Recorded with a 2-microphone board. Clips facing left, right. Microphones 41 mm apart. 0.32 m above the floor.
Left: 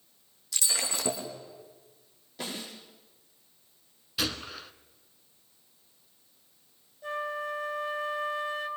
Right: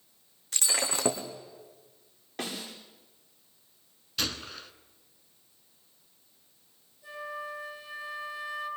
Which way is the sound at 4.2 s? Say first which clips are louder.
Left 1 dB; 5° left (ahead or behind).